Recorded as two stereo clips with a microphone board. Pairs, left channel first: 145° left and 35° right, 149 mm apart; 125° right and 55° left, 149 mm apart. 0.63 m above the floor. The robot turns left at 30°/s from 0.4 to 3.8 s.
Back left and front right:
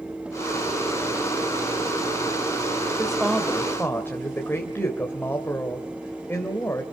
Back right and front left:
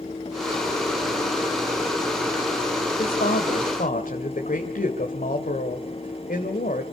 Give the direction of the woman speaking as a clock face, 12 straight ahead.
4 o'clock.